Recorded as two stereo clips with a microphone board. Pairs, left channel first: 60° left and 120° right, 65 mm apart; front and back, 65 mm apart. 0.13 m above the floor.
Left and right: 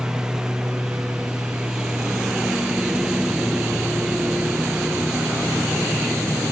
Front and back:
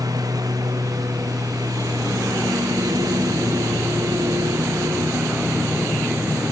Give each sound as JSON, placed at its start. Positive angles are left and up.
{"t": 0.0, "sound": "a lawn mower", "azimuth_deg": 160}